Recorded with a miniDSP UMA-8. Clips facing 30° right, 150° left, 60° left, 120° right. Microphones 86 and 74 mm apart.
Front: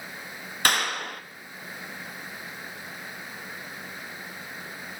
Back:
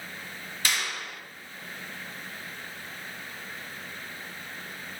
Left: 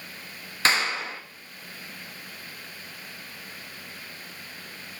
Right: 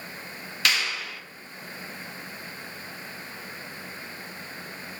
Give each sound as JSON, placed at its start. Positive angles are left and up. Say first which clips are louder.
{"t": 0.7, "sound": "a clap", "louder": "front 6 dB, left 3 dB", "azimuth_deg": 5, "distance_m": 1.3}